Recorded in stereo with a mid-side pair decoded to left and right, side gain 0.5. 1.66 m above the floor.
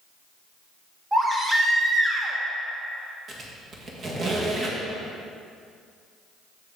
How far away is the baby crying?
About 1.5 m.